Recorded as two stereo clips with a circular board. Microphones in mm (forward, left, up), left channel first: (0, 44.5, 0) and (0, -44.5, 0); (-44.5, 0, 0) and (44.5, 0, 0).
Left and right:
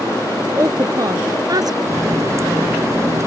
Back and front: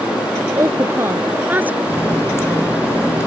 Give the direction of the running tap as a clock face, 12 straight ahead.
4 o'clock.